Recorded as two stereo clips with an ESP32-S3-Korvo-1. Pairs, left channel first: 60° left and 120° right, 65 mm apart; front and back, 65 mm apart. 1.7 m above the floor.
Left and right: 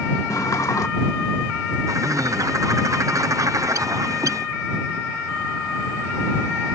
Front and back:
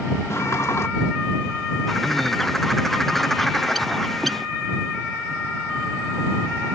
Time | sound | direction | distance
0.3 | a sliding door | 40° left | ?
1.9 | a bird | 85° right | ?